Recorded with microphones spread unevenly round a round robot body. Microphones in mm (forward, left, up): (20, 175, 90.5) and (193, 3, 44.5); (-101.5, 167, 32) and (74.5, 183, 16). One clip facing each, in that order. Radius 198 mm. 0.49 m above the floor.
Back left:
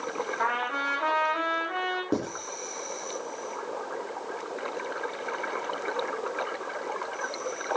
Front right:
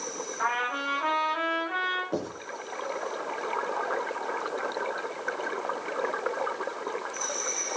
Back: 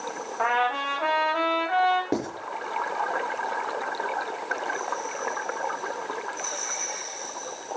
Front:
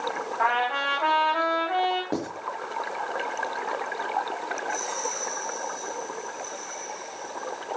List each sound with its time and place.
0.4 s a trumpet: 100° left, 7.5 m
2.1 s writing: 120° left, 5 m